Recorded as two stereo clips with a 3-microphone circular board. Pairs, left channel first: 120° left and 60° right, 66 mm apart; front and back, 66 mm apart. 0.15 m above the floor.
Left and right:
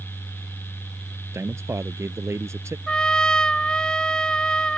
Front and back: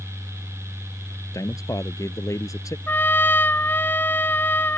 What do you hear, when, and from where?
1.3 s a man speaking: 20° right
2.9 s a trumpet: 45° left